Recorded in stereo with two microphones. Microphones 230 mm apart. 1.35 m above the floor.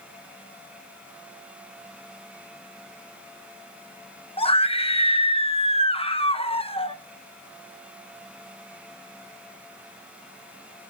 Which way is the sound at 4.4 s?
25° left (ahead or behind).